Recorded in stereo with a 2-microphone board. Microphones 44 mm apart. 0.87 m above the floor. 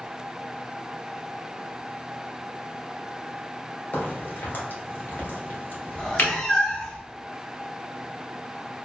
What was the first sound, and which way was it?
A crack, 45° left (ahead or behind).